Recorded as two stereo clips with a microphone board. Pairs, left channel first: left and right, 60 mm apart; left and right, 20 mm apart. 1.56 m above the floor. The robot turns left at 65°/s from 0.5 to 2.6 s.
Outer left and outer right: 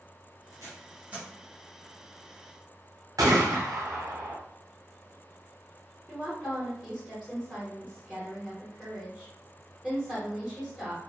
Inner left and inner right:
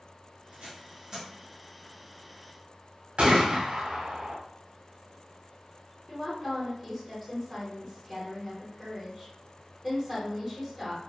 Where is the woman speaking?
Centre (ahead or behind), 1.2 m.